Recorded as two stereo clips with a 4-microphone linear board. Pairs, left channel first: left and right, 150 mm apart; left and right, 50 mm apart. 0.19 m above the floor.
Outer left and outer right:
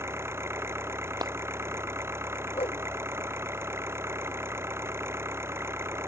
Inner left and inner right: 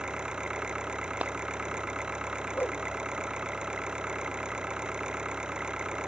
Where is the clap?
25° right (ahead or behind).